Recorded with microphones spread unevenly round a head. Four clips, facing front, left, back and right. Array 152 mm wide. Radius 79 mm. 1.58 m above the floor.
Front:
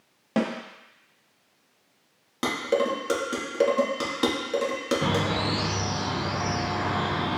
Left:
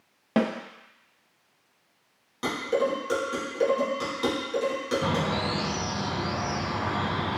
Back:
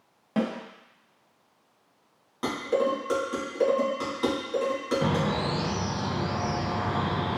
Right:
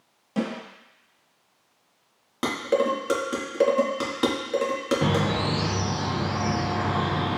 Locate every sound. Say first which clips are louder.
0.4 s a snare drum: left 3 dB, front 2 dB; 60° left, 0.7 m
2.4 s dishes clattering: right 3 dB, front 1 dB; 50° right, 1.5 m
5.0 s a bird: right 3 dB, even; 95° right, 1.1 m